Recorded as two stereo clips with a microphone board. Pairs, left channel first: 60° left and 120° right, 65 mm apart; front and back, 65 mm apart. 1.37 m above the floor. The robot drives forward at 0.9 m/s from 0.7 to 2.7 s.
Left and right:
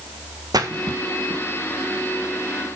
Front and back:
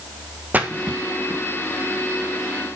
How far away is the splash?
About 1.5 m.